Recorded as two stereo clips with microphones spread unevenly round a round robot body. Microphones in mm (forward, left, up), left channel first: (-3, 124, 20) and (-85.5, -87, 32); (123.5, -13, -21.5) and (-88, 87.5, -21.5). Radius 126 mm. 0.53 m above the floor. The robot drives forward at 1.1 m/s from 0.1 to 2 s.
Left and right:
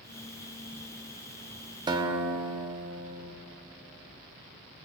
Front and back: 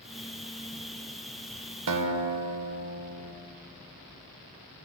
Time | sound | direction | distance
1.9 | a guitar | 175° left | 0.7 m